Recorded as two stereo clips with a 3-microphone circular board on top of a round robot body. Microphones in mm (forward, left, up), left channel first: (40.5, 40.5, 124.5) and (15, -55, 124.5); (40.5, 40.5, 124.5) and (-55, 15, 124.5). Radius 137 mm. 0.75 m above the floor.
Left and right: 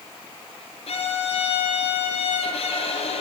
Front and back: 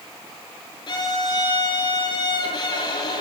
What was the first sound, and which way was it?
A violin, 55° left.